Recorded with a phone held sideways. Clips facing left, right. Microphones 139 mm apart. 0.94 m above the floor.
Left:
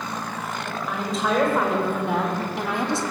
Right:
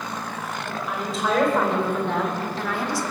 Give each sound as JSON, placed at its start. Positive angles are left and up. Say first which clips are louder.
{"t": 0.7, "sound": "a woman speaking", "louder": "left 1 dB", "side_deg": -5, "distance_m": 5.5}